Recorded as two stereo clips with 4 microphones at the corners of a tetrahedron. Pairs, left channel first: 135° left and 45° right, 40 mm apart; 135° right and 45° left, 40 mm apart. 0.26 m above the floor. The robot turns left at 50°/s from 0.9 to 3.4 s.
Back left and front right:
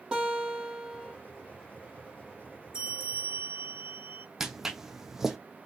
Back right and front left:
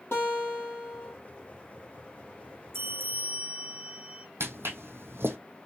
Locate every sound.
0.1 s a guitar: 115° right, 2.5 m; by 1.1 s 125° right, 2.5 m
2.7 s a bell: 20° left, 1.5 m; by 4.3 s 15° right, 1.5 m
4.4 s footsteps: 35° left, 0.8 m